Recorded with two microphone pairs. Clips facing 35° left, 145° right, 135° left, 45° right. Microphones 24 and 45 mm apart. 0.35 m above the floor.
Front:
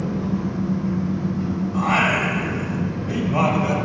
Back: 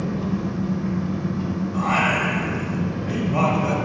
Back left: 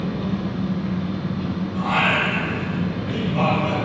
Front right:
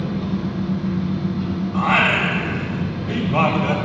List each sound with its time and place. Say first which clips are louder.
0.0 s an engine running: front 1 dB, front right 1 dB; straight behind, 1.2 m
1.7 s singing: front 1 dB, front right 3 dB; 50° right, 0.8 m